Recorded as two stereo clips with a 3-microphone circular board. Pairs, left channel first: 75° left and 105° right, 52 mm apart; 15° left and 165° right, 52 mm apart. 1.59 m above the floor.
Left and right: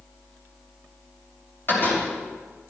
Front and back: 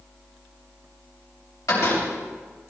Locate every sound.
1.7 s a door slam: 30° left, 7 m